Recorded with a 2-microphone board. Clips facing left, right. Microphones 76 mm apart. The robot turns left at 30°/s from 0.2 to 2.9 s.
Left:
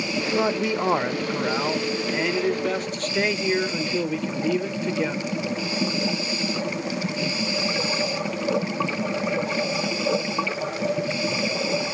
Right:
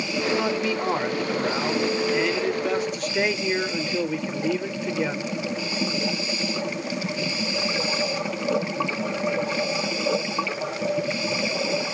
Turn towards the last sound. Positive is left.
turn(degrees=-5)  # may be behind; listen again after turning